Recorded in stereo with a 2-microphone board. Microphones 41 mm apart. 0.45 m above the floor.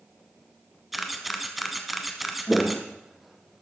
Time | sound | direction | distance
0.9 | a camera shutter | centre (ahead or behind) | 1.1 m
2.5 | footsteps | 15° left (ahead or behind) | 0.6 m